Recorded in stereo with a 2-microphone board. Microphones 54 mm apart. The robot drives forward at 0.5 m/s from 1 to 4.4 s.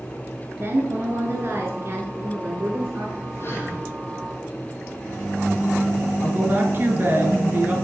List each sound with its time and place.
0.6 s a woman speaking: 45° right (ahead or behind), 1.8 m
3.4 s breathing: 45° left (ahead or behind), 2 m; by 3.8 s 40° left (ahead or behind), 2 m
6.2 s a woman speaking: 35° right (ahead or behind), 1.8 m